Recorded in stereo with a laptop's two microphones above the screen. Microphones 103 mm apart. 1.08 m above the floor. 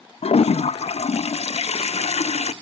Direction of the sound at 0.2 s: 80° left.